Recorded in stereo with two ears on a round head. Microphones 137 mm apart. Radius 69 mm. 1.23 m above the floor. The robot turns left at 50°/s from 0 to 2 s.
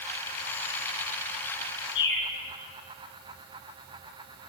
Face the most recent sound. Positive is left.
turn(degrees=80)